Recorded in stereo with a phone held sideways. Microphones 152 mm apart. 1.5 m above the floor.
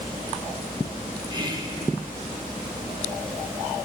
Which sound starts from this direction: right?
Whispering, at 1.3 s.